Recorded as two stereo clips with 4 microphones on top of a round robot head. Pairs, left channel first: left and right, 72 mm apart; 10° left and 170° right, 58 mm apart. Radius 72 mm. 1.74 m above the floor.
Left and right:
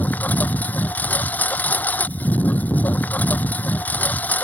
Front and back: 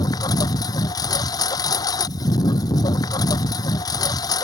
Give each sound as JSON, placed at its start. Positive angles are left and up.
{"t": 0.0, "sound": "a lawn mower", "azimuth_deg": 20}